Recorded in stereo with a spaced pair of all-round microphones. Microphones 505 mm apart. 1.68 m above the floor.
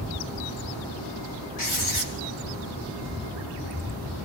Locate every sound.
1.6 s writing: 80° left, 3 m